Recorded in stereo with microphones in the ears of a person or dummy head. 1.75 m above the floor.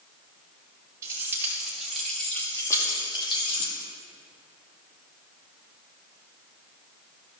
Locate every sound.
1.0 s keys jangling: 15° right (ahead or behind), 2 m; by 3.7 s 40° left (ahead or behind), 2.5 m